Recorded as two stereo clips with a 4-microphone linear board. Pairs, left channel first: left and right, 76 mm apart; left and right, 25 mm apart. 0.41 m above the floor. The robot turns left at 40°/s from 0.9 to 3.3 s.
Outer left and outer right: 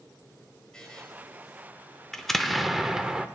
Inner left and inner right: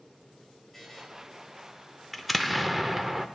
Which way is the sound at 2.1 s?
5° left (ahead or behind).